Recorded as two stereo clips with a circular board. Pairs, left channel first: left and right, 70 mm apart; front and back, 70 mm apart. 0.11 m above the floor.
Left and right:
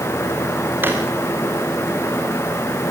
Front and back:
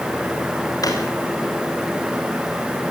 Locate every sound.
0.8 s a drawer: 30° right, 5 m